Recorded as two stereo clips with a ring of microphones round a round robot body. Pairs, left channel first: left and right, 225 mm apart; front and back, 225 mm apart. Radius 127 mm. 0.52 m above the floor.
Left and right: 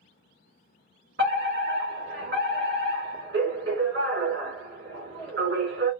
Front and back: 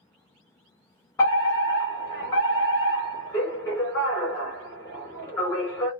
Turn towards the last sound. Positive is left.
turn(degrees=-70)